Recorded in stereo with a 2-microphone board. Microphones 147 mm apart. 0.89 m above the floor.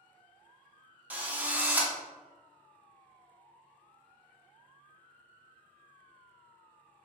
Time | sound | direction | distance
1.1 | a drill | 10° right (ahead or behind) | 0.5 m